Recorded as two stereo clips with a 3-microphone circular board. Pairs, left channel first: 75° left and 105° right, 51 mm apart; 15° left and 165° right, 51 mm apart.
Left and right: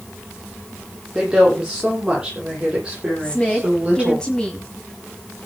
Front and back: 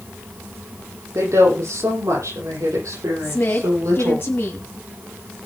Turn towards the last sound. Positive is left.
turn(degrees=5)